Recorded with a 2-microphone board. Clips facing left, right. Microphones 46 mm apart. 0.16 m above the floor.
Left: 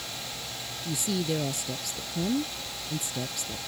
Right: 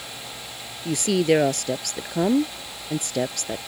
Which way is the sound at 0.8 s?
60° right (ahead or behind).